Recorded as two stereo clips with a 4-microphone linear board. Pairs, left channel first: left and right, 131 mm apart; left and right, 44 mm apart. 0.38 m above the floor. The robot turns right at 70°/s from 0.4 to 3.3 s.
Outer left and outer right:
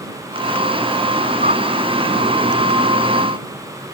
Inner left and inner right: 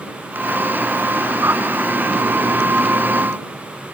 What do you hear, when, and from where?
1.4 s a whoosh: 70° right (ahead or behind); by 1.6 s 65° right (ahead or behind)